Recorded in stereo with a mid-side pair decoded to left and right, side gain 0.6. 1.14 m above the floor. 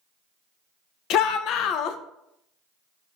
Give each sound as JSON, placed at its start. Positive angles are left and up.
{"t": 1.1, "sound": "a shout", "azimuth_deg": 60, "distance_m": 0.5}